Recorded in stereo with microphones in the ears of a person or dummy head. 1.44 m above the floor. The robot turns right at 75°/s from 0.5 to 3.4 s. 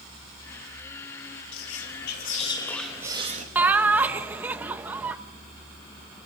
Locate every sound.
1.5 s whispering: 80° left, 3 m; by 3.5 s 140° right, 3 m
3.5 s laughter: 15° right (ahead or behind), 1.6 m